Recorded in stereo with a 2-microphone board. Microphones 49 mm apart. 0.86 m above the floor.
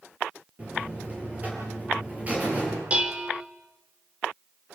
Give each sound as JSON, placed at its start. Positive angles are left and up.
{"t": 0.6, "sound": "a buzzer", "side_deg": -30, "distance_m": 10.0}
{"t": 2.9, "sound": "dishes clattering", "side_deg": -25, "distance_m": 2.0}